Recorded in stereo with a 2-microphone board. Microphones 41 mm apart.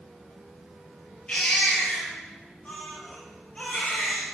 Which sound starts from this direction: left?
A baby crying, at 1.3 s.